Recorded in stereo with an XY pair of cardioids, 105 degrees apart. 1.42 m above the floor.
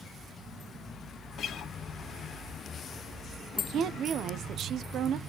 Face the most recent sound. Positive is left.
turn(degrees=-65)